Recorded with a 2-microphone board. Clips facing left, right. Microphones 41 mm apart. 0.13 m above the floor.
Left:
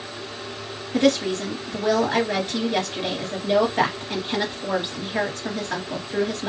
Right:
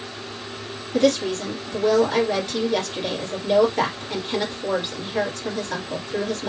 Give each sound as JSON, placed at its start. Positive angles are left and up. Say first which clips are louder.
{"t": 0.9, "sound": "a woman speaking", "louder": "even", "side_deg": 20, "distance_m": 2.0}